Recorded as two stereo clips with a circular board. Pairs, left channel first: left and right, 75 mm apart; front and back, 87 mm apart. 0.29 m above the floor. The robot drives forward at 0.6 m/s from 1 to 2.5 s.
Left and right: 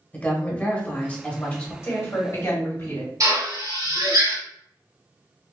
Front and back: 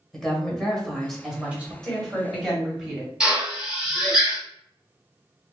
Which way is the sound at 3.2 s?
100° right.